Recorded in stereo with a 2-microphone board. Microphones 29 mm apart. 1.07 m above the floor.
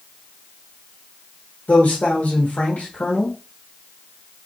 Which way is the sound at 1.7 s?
60° left (ahead or behind).